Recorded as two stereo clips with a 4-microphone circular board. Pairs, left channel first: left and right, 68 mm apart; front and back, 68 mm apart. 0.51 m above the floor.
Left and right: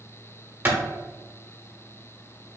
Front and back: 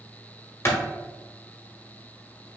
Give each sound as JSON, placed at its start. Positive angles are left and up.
{"t": 0.7, "sound": "a clap", "azimuth_deg": -30, "distance_m": 1.3}